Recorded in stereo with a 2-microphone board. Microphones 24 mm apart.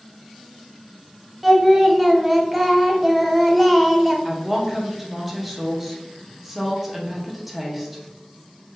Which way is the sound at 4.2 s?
15° right (ahead or behind).